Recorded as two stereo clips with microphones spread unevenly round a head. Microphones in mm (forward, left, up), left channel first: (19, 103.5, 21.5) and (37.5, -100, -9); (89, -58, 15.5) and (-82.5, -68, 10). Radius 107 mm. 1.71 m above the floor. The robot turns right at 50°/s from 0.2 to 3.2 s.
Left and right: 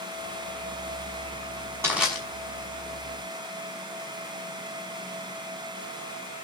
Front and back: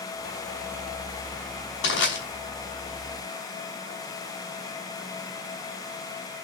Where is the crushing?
5° right, 6 m; by 2.2 s 10° left, 6 m.